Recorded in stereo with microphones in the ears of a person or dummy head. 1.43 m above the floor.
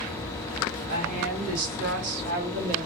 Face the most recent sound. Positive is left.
turn(degrees=-50)  # may be behind; listen again after turning